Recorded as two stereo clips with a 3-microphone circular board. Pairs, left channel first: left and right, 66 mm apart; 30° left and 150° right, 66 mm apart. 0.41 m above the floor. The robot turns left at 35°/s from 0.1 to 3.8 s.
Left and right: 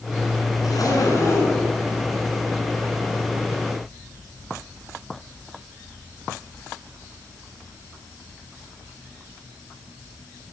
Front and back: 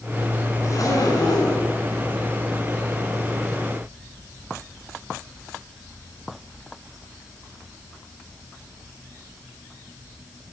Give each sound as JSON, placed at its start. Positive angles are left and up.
{"t": 0.6, "sound": "a zipper", "azimuth_deg": 70, "distance_m": 5.5}